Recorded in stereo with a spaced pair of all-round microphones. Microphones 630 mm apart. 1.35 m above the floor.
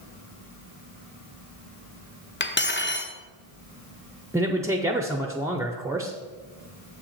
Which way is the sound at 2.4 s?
20° left (ahead or behind).